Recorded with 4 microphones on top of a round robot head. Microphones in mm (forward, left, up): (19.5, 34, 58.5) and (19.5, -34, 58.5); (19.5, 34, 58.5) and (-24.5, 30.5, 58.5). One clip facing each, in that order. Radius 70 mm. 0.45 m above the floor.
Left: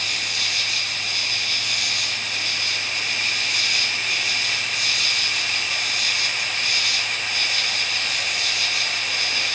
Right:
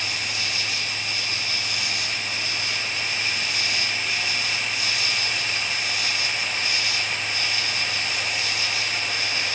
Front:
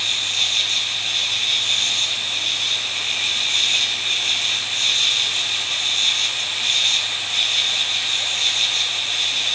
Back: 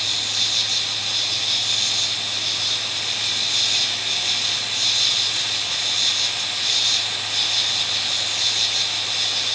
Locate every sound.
0.0 s an insect: 55° left, 1.7 m